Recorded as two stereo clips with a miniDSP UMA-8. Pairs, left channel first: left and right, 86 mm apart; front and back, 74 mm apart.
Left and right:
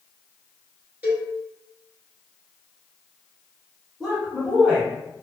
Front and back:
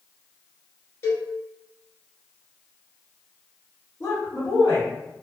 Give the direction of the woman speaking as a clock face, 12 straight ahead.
12 o'clock.